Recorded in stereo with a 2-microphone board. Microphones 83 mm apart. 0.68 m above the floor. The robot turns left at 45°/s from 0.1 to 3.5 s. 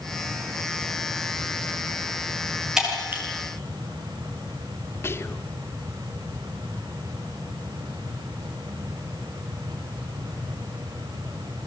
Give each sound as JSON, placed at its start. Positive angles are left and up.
{"t": 2.8, "sound": "breaking glass", "side_deg": -10, "distance_m": 7.0}
{"t": 5.0, "sound": "whispering", "side_deg": 30, "distance_m": 1.6}